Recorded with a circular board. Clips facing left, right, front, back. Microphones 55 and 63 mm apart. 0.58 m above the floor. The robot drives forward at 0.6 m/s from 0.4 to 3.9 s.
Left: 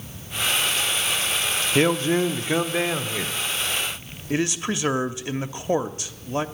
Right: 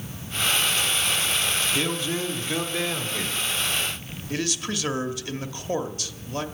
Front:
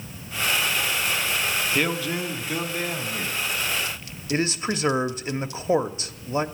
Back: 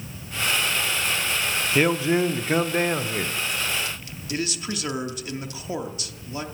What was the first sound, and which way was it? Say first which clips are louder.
A man speaking: left 7 dB, back 9 dB; 110° left.